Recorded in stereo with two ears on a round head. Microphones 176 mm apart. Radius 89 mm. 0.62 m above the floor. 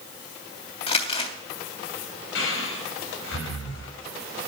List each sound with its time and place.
0.9 s crumpling: 35° left (ahead or behind), 3 m
2.4 s breathing: 75° left (ahead or behind), 4 m